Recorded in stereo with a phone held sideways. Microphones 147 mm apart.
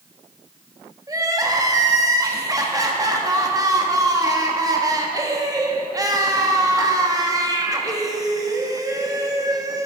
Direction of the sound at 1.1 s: 25° right (ahead or behind).